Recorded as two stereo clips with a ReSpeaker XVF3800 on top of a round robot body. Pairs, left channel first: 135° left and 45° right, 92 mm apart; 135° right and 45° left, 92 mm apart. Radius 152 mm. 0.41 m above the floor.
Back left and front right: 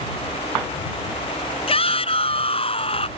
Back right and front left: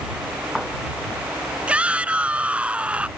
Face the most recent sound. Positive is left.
turn(degrees=120)